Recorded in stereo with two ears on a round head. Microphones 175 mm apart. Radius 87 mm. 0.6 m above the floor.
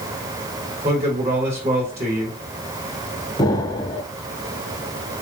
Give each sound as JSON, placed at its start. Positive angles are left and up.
{"t": 0.8, "sound": "a man speaking", "side_deg": -35, "distance_m": 3.0}
{"t": 3.4, "sound": "an explosion", "side_deg": 20, "distance_m": 0.6}